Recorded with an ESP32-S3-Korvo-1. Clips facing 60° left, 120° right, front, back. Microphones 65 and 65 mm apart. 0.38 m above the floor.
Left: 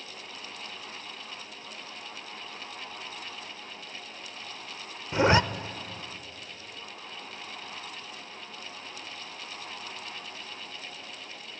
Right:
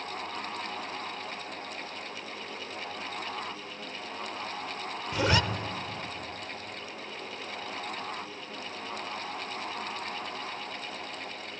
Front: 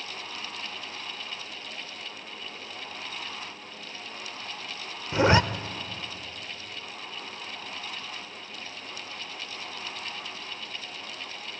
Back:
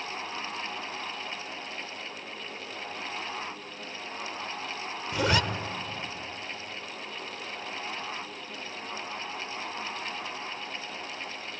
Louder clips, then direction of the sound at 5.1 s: Left 5 dB, front 6 dB; 25° left.